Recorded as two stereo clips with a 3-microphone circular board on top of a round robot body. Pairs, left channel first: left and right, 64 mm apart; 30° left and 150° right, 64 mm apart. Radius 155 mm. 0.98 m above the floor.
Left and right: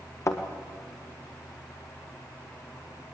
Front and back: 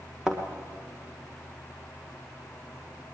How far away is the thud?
About 1.4 m.